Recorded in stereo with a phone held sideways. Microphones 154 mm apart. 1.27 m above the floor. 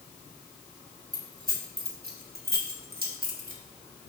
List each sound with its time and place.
1.1 s keys jangling: 65° right (ahead or behind), 1.8 m; by 3.6 s 60° right (ahead or behind), 1.6 m